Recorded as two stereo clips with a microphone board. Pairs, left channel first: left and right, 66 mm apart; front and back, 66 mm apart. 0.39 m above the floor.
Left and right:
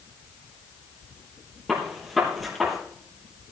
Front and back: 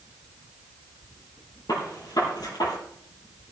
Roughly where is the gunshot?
Ahead.